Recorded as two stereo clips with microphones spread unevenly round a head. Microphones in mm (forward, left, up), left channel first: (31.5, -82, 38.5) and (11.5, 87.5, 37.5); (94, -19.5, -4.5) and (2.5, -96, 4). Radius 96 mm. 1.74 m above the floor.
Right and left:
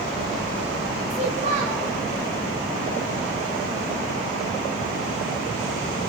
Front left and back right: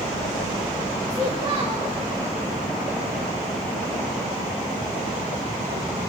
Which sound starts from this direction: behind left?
A child speaking, at 1.1 s.